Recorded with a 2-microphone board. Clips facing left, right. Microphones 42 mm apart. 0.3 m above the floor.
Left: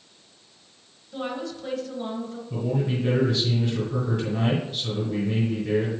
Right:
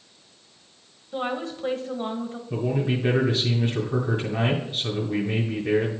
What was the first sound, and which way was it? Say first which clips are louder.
A woman speaking: right 3 dB; 35° right (ahead or behind).